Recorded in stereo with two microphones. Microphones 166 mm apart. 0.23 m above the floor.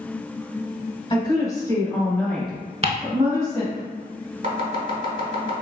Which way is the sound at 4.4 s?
50° right (ahead or behind).